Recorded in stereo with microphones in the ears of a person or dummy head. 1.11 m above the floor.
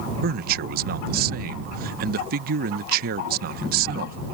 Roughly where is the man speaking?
Right.